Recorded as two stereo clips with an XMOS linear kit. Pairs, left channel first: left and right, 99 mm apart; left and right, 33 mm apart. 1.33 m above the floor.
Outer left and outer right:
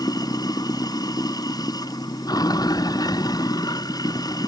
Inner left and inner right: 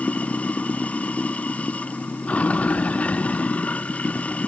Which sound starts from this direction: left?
Running water, at 0.0 s.